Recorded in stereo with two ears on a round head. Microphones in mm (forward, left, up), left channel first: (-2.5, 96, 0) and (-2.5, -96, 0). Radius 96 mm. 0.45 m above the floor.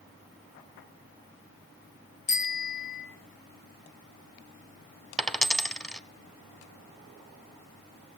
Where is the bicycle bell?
35° left (ahead or behind), 4 m.